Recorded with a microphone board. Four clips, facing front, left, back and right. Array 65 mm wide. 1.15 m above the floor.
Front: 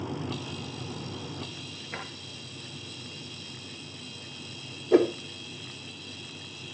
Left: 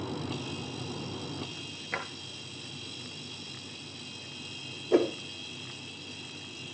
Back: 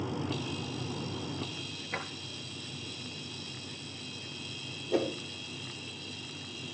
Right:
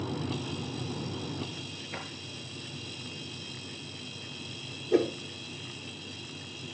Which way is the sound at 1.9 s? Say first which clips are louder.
Left 6 dB, back 1 dB; 85° left.